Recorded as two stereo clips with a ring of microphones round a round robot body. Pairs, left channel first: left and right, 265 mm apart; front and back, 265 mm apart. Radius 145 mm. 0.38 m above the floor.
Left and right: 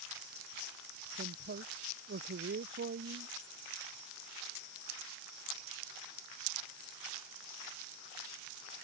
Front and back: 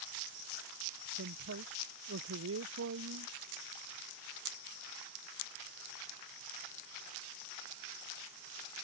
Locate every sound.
1.1 s a man speaking: 140° right